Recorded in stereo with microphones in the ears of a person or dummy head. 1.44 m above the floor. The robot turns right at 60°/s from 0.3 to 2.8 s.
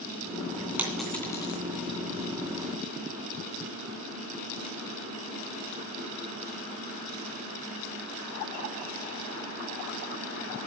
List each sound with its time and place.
0.8 s a dropped coin: 10° right (ahead or behind), 2.5 m; by 1.6 s 30° left (ahead or behind), 2.5 m